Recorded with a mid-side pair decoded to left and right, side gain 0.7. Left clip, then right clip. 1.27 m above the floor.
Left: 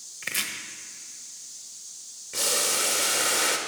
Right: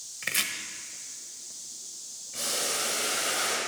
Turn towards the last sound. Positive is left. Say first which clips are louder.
# left 5 dB
turn(degrees=55)